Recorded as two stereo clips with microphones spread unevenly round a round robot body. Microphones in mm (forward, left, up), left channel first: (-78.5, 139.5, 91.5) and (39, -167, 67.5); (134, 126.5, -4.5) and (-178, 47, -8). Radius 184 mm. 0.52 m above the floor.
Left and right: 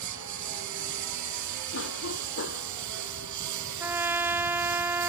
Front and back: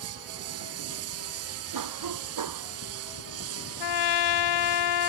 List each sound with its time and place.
0.0 s a lawn mower: 110° right
1.7 s a cough: 165° left
3.8 s a trumpet: 15° left